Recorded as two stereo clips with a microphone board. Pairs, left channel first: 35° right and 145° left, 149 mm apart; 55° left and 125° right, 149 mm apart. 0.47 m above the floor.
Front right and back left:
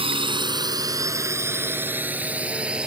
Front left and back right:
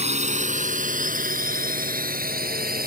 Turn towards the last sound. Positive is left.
turn(degrees=-130)